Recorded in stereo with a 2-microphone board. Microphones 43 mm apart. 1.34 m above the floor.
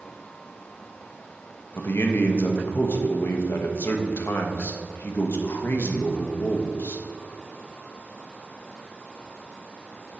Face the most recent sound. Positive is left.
turn(degrees=55)  # may be behind; listen again after turning